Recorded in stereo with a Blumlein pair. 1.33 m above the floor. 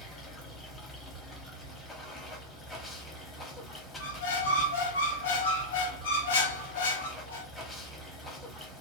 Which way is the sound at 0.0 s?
15° left.